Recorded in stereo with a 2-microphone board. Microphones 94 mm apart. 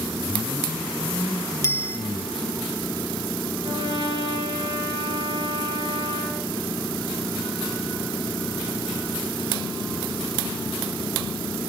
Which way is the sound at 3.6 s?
70° right (ahead or behind).